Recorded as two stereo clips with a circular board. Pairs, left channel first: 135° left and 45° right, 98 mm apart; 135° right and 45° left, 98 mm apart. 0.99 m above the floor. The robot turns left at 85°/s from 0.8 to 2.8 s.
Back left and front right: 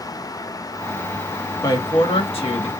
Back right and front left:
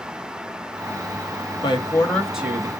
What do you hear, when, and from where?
1.6 s a woman speaking: 170° right, 1.2 m; by 2.7 s 100° left, 1.2 m